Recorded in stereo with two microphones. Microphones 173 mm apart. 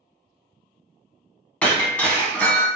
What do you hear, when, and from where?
1.6 s breaking glass: 10° left (ahead or behind), 0.6 m